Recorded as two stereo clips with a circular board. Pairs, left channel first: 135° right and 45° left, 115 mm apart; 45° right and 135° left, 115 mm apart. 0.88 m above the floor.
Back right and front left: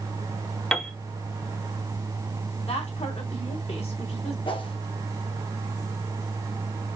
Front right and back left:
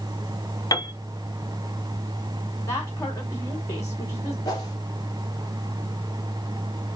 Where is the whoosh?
95° right, 1.9 m.